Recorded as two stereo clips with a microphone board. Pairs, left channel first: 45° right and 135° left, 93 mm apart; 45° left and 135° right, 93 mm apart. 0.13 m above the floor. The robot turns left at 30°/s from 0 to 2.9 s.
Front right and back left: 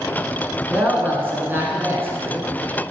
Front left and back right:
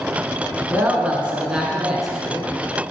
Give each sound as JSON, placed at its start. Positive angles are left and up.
{"t": 0.7, "sound": "a woman speaking", "azimuth_deg": -175, "distance_m": 1.3}